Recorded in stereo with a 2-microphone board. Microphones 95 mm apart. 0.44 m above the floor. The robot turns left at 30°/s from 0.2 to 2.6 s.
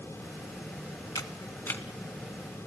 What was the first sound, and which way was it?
A camera shutter, 40° left (ahead or behind).